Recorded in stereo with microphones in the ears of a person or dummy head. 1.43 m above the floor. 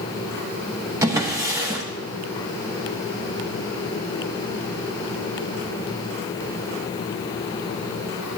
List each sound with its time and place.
1.0 s a drawer: 15° right (ahead or behind), 0.9 m